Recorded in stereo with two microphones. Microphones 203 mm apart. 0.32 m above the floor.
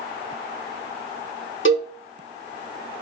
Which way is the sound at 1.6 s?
75° left (ahead or behind).